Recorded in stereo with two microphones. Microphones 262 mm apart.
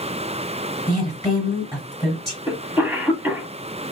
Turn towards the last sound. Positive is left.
turn(degrees=-10)  # may be behind; listen again after turning